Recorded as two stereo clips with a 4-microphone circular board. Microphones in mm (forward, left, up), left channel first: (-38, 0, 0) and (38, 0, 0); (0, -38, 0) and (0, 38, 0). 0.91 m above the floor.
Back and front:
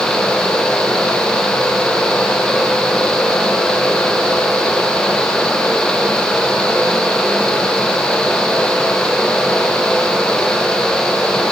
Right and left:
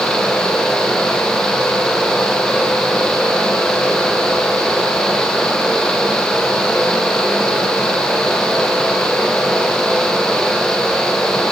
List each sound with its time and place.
Only background noise.